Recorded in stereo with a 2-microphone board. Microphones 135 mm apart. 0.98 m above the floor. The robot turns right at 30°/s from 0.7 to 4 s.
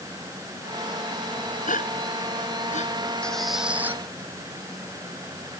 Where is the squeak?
5° left (ahead or behind); by 4.0 s 15° right (ahead or behind).